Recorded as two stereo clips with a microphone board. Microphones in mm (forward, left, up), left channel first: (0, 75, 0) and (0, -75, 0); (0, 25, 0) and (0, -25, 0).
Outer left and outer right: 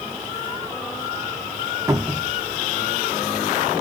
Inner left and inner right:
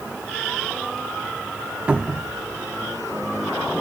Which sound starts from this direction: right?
A cupboard door, at 1.9 s.